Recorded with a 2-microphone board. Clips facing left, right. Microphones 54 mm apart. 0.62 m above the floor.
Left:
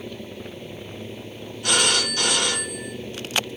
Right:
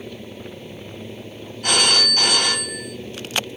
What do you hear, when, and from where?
1.6 s a phone ringing: 50° right (ahead or behind), 1.8 m